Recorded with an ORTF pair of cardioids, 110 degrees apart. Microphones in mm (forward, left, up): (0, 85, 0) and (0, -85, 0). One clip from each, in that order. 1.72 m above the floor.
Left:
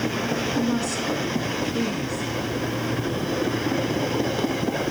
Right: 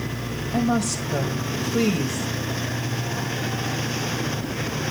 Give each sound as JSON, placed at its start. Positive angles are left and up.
{"t": 0.5, "sound": "a woman speaking", "azimuth_deg": -60, "distance_m": 1.4}